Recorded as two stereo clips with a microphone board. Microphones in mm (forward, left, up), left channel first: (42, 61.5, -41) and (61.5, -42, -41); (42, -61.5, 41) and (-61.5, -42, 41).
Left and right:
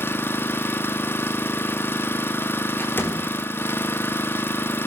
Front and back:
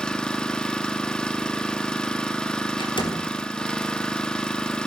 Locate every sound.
0.0 s an engine running: 60° left, 0.9 m
2.8 s a door slam: 30° left, 3.5 m